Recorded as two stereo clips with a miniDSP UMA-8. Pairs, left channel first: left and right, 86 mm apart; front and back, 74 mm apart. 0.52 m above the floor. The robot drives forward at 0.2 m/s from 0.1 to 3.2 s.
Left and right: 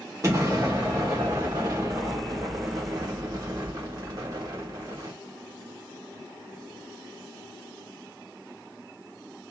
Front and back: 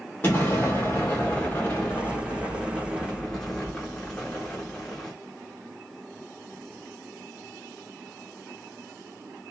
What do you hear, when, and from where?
0.2 s an explosion: 50° right, 1.4 m; by 5.1 s 80° right, 1.2 m